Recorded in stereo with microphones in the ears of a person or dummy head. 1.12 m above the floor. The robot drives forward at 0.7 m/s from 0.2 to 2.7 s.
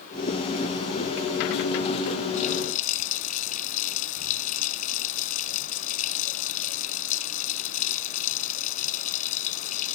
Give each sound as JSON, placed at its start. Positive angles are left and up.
{"t": 2.3, "sound": "a running tap", "side_deg": 45}